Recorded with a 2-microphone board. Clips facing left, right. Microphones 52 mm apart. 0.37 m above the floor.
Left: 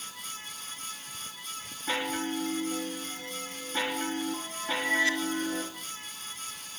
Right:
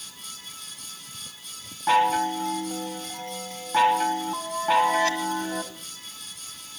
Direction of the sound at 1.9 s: 70° right (ahead or behind).